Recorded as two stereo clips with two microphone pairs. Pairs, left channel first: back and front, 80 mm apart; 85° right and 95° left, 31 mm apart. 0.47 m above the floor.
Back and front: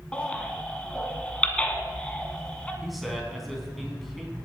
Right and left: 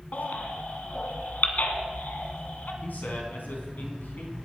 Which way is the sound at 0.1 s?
105° right.